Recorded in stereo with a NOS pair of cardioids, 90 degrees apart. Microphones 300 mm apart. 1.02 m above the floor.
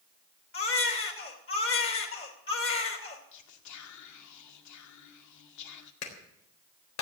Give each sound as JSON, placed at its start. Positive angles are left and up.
{"t": 0.5, "sound": "a baby crying", "azimuth_deg": 45, "distance_m": 3.0}
{"t": 3.3, "sound": "whispering", "azimuth_deg": 70, "distance_m": 2.0}
{"t": 6.0, "sound": "a clap", "azimuth_deg": 60, "distance_m": 4.0}